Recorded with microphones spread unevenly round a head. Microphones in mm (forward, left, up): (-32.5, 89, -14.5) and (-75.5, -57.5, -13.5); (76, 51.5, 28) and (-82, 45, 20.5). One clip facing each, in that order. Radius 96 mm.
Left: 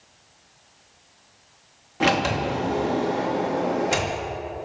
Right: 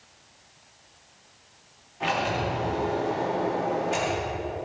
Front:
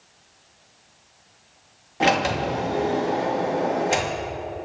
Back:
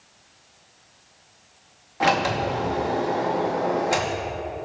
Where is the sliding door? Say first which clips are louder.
Left 5 dB, front 1 dB; 65° left, 2.5 m.